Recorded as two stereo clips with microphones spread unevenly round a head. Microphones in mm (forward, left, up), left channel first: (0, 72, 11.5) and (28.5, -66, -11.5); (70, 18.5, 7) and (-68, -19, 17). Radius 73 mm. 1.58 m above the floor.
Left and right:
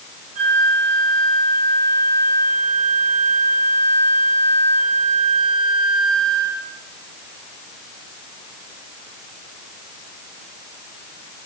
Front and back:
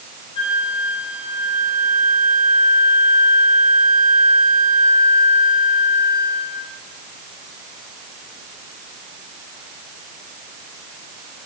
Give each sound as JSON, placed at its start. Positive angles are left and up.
{"t": 0.3, "sound": "a flute", "azimuth_deg": -40, "distance_m": 8.0}